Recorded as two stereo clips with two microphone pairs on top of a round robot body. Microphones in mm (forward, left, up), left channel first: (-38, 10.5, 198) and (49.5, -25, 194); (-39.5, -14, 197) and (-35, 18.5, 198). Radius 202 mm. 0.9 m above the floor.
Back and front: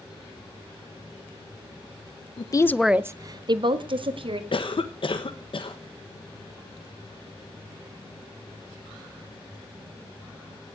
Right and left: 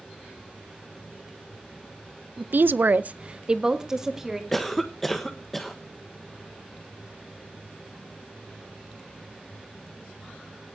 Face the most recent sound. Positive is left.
turn(degrees=180)